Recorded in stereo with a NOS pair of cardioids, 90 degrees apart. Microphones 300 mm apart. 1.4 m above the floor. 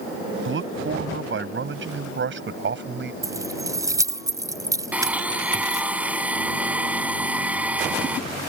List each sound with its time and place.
0.5 s a man speaking: 45° right; by 3.1 s 40° right
3.2 s keys jangling: 10° right
4.9 s a blender: 5° right